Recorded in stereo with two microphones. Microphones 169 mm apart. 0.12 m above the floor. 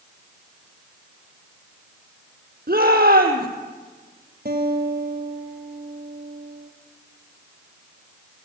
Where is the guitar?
65° right (ahead or behind), 3 m.